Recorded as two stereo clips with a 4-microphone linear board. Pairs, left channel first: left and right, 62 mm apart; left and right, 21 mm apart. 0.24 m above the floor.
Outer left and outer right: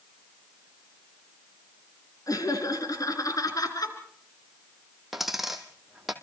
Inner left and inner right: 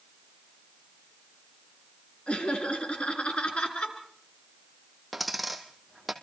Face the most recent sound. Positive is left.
turn(degrees=-5)  # may be behind; listen again after turning